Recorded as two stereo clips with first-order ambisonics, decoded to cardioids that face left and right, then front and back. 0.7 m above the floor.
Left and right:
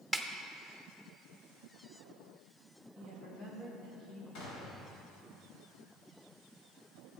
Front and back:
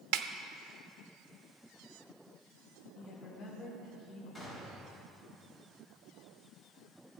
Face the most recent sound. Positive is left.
turn(degrees=80)